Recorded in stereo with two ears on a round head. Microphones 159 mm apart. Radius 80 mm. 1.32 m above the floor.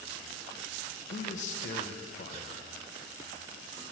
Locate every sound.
1.1 s a man speaking: 45° left (ahead or behind), 1.0 m